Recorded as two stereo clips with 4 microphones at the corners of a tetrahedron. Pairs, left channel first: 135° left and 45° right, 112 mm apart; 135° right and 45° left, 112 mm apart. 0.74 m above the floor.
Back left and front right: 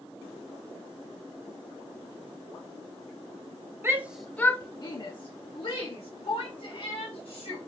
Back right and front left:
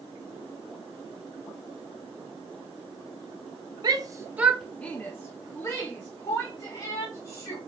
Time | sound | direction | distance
3.8 | a shout | 10° left | 0.6 m